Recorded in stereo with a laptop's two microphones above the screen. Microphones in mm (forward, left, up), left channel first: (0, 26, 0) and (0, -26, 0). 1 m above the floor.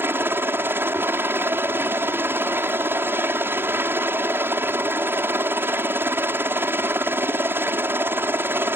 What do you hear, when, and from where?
0.0 s a helicopter: 40° right (ahead or behind)